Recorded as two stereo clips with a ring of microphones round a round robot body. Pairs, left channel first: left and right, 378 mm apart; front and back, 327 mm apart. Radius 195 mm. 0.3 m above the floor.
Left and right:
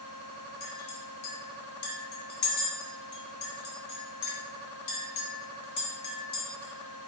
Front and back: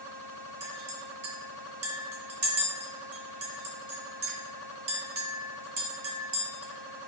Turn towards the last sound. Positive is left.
turn(degrees=135)